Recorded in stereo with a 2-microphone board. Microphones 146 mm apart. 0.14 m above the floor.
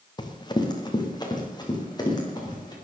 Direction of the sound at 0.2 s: 30° left (ahead or behind).